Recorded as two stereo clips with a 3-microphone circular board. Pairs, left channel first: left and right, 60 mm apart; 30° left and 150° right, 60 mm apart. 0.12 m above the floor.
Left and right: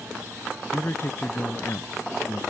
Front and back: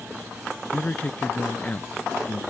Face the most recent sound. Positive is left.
turn(degrees=80)